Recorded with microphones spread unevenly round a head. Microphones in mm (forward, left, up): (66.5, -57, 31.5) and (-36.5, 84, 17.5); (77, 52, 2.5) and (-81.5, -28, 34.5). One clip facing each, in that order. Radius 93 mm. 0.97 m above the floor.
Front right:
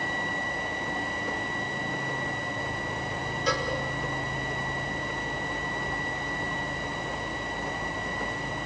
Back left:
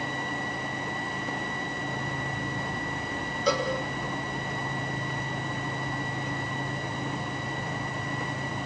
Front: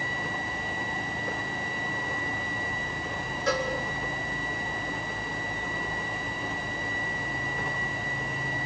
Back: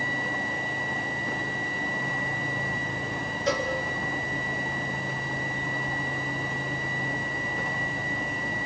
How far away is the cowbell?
About 4 m.